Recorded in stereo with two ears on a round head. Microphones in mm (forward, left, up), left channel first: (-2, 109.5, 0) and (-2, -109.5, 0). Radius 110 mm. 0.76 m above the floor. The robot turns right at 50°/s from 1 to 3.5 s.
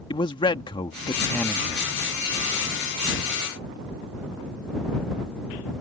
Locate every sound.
0.1 s a man speaking: 155° left; by 1.9 s 160° right